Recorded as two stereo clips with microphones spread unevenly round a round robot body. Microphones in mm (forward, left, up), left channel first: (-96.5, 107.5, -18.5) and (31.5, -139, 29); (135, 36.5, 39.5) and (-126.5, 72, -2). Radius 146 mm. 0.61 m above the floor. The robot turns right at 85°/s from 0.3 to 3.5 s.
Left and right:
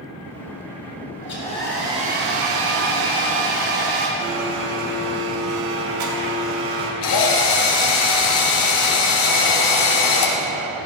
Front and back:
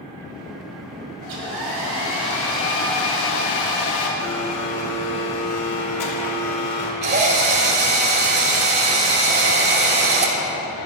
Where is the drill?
120° left, 4.5 m.